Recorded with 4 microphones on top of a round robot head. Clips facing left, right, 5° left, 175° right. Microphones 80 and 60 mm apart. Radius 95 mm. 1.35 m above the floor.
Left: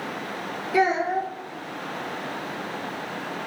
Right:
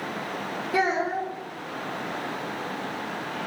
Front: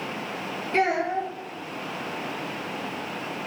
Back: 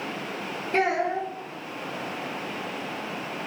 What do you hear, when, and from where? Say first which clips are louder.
0.7 s a child speaking: left 3 dB, front 1 dB; 125° right, 0.7 m